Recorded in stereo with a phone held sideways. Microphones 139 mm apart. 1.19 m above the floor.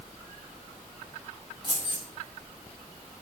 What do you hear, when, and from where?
1.6 s keys jangling: 35° left (ahead or behind), 1.2 m